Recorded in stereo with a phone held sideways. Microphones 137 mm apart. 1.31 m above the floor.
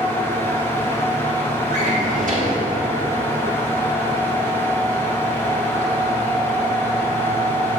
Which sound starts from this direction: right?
A drawer, at 1.7 s.